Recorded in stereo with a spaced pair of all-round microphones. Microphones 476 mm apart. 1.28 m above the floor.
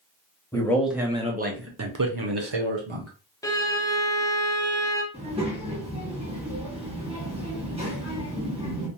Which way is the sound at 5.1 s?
10° right (ahead or behind).